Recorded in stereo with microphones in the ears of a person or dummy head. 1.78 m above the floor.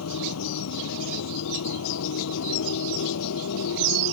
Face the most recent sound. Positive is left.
turn(degrees=85)